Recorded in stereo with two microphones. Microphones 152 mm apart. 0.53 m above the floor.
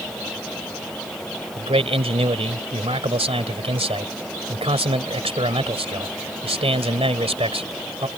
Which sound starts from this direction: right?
A man speaking, at 1.6 s.